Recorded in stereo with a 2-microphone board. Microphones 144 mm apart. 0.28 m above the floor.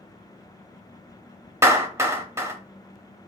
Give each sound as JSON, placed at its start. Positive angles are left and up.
{"t": 1.6, "sound": "a clap", "side_deg": -15, "distance_m": 0.7}